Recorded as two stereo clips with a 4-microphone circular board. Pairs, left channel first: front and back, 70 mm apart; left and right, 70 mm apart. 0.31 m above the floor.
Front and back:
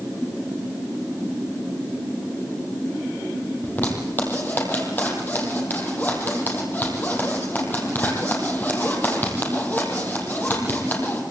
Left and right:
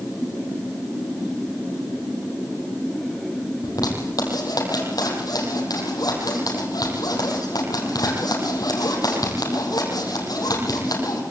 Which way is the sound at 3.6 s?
65° left.